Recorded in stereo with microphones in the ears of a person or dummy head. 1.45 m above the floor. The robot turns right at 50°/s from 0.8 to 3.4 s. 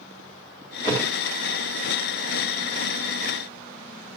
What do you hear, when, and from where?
0.8 s a thud: 25° left (ahead or behind), 4 m; by 1.1 s 10° left (ahead or behind), 4 m